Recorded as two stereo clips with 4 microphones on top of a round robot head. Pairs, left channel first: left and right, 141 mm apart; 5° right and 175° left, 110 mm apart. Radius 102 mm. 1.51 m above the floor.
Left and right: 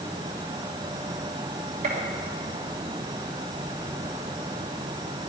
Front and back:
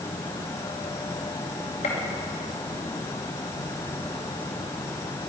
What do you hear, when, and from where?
1.8 s a gunshot: 45° right, 2 m